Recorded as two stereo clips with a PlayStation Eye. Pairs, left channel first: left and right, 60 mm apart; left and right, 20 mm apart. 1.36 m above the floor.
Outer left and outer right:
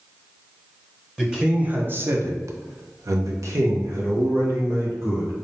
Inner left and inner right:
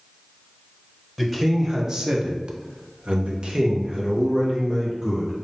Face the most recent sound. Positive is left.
turn(degrees=-45)  # may be behind; listen again after turning